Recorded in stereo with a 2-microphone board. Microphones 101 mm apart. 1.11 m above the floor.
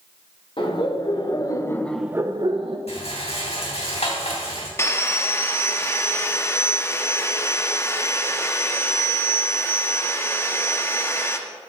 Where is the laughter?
55° left (ahead or behind), 1.7 m; by 2.8 s 65° right (ahead or behind), 0.9 m.